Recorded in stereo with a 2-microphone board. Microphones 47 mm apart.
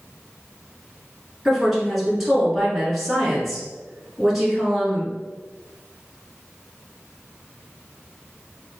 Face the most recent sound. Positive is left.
turn(degrees=-5)  # may be behind; listen again after turning